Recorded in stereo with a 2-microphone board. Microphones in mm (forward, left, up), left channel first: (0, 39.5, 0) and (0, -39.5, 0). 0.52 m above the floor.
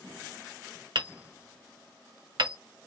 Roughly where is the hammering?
Right.